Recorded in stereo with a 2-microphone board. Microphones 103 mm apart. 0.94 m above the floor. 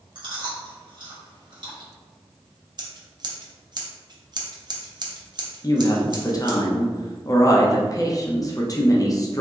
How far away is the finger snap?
I don't hear a finger snap.